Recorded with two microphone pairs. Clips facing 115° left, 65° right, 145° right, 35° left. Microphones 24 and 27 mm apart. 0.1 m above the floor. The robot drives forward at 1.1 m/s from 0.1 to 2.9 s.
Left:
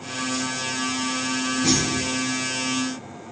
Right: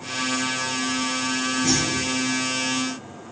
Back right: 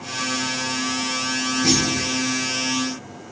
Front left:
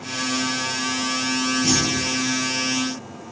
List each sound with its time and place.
1.6 s a clunk: 150° left, 4.5 m; by 2.1 s 155° left, 5 m